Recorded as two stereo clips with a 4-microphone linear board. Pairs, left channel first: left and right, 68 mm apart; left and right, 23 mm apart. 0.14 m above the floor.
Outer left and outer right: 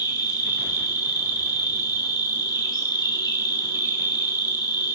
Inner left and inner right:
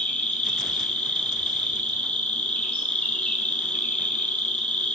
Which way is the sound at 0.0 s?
70° left (ahead or behind).